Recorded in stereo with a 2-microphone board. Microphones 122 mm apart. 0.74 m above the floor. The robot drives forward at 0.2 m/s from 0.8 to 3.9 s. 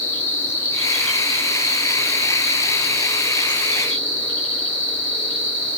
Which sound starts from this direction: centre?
An insect, at 0.0 s.